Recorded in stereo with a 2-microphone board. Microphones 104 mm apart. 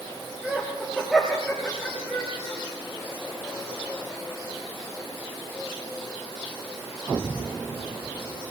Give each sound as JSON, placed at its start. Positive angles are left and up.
{"t": 0.4, "sound": "laughter", "side_deg": -5, "distance_m": 5.0}